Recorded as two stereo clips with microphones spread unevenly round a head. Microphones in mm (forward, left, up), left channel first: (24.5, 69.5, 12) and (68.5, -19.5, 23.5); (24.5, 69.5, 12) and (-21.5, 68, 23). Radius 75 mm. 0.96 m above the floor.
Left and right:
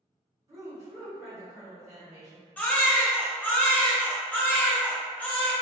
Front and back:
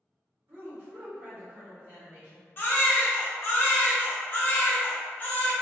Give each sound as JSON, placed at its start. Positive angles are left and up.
{"t": 0.5, "sound": "a woman speaking", "azimuth_deg": -130, "distance_m": 0.9}
{"t": 2.6, "sound": "a baby crying", "azimuth_deg": 40, "distance_m": 0.6}